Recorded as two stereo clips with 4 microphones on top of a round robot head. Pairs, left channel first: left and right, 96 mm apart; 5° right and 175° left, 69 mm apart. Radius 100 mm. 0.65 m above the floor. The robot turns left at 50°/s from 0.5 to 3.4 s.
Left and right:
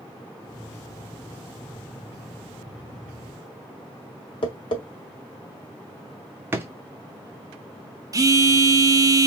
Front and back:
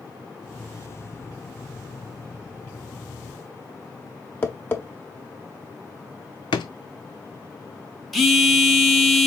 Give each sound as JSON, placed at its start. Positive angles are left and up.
{"t": 4.4, "sound": "tapping", "azimuth_deg": 50, "distance_m": 1.5}
{"t": 6.5, "sound": "a drawer", "azimuth_deg": -20, "distance_m": 0.5}
{"t": 8.1, "sound": "a phone buzzing", "azimuth_deg": -100, "distance_m": 1.1}